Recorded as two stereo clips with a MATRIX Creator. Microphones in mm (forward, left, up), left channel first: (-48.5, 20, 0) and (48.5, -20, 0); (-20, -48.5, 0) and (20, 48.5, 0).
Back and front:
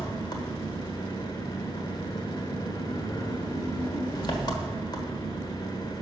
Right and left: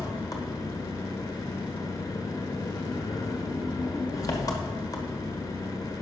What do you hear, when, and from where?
0.0 s an engine running: 160° right, 1.4 m